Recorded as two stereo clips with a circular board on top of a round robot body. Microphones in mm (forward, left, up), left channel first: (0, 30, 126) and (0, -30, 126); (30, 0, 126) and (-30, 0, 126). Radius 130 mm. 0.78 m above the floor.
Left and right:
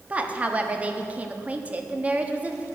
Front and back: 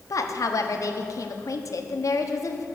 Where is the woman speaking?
25° right, 1.3 m.